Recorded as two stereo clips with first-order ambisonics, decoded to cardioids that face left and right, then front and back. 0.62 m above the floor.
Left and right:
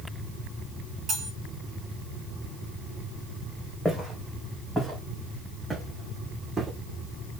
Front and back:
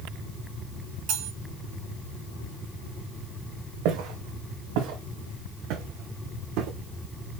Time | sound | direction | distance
1.1 | cutlery clinking | 155° right | 4 m
3.9 | footsteps | 175° left | 3.5 m